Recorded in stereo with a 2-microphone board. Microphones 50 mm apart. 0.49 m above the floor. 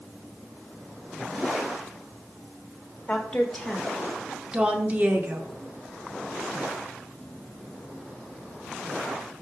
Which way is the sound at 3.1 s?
10° left (ahead or behind).